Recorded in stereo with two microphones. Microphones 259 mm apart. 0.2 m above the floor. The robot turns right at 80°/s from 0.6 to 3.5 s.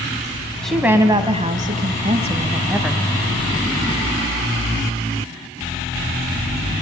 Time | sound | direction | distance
0.6 | a woman speaking | 5° left (ahead or behind) | 1.2 m